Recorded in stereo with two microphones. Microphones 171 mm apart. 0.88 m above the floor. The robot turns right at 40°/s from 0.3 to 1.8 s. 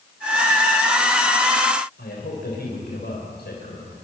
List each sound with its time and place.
2.0 s a man speaking: 75° left (ahead or behind), 4 m